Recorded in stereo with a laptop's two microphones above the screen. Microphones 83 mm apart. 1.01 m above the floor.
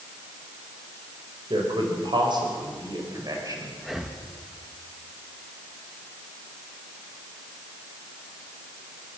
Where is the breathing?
5° right (ahead or behind), 1.2 m.